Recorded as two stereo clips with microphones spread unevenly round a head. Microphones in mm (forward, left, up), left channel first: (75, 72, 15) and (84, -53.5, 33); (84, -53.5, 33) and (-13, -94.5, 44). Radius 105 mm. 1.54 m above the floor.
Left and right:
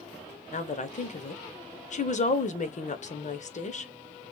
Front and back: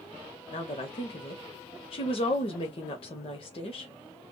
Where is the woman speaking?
70° left, 0.8 m.